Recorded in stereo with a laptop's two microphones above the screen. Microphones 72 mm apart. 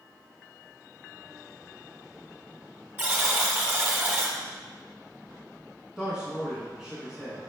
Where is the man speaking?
10° right (ahead or behind), 1.2 m.